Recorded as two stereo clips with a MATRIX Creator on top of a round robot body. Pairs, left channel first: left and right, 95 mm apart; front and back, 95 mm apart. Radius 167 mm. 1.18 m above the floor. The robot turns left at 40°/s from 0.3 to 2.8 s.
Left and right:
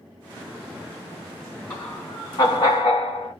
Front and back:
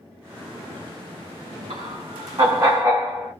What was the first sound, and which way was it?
Laughter, 170° left.